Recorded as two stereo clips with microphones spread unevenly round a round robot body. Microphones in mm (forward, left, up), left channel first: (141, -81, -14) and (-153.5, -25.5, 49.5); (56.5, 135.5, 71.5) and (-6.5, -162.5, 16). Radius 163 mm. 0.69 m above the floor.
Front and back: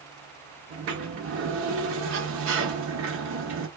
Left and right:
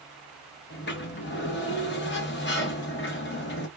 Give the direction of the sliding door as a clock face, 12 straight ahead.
8 o'clock.